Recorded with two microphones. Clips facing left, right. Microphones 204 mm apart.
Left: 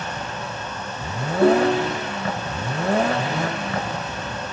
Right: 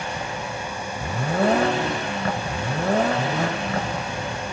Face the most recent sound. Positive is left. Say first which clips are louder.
# left 5 dB
turn(degrees=65)  # may be behind; listen again after turning